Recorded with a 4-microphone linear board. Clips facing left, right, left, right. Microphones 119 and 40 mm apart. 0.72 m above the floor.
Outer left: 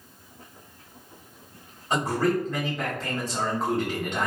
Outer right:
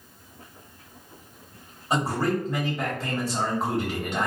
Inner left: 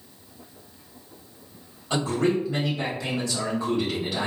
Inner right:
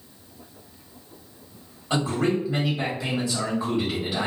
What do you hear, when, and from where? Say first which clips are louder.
1.9 s a man speaking: outer left 1 dB, even; 10° right (ahead or behind), 1.6 m